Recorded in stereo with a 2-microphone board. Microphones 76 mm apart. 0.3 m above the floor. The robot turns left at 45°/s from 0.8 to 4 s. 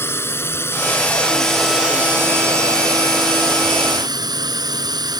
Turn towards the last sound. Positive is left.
turn(degrees=-110)